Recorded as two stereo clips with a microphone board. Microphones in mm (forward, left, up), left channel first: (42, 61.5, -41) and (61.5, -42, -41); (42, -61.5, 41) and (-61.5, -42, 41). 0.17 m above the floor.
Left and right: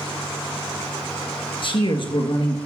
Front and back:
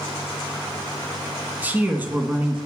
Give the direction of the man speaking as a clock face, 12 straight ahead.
9 o'clock.